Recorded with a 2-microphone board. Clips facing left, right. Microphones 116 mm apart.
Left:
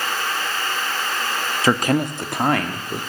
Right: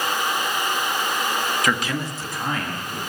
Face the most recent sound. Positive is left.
turn(degrees=75)  # may be behind; listen again after turning